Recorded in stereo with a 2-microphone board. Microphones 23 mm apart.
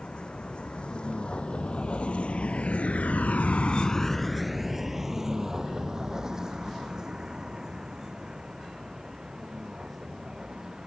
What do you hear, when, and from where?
0.0 s a vehicle: 45° left (ahead or behind); by 10.9 s 30° right (ahead or behind)